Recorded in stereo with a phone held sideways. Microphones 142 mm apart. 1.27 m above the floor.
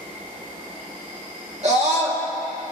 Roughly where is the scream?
Right.